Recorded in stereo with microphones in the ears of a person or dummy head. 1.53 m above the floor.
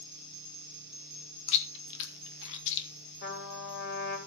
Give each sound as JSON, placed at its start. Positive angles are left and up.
{"t": 1.5, "sound": "chewing", "side_deg": 65, "distance_m": 1.8}
{"t": 3.2, "sound": "a trumpet", "side_deg": 55, "distance_m": 3.5}